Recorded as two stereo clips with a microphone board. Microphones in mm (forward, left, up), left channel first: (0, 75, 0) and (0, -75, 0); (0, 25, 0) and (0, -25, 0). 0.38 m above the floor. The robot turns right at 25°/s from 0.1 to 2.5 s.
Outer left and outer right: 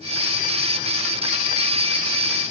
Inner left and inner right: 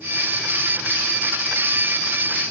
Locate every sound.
Only background noise.